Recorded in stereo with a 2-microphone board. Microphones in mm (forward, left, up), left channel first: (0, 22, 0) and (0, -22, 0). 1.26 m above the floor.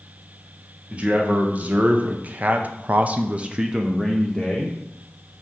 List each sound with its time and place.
0.9 s a man speaking: 30° right (ahead or behind), 1.4 m; by 4.8 s 5° left (ahead or behind), 0.9 m